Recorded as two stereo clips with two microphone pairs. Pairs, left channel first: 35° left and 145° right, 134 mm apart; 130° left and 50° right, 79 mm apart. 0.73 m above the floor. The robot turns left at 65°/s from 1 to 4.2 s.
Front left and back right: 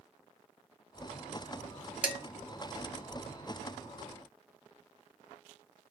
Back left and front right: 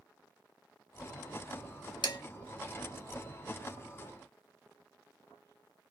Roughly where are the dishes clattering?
Behind left.